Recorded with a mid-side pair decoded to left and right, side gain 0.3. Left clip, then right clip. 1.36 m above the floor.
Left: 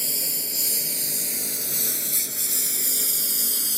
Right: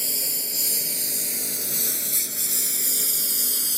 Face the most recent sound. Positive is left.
turn(degrees=-10)